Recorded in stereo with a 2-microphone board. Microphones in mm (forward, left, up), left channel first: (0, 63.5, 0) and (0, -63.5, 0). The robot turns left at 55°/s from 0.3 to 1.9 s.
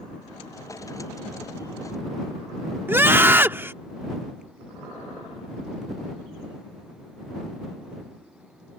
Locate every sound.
2.9 s a scream: 15° right (ahead or behind)